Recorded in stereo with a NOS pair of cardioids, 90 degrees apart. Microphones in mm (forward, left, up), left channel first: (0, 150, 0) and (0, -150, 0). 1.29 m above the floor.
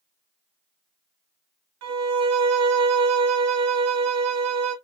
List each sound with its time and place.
1.8 s a violin: 60° right, 0.8 m